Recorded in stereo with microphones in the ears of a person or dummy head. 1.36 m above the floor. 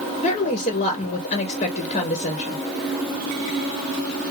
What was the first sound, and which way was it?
A woman speaking, 30° left (ahead or behind).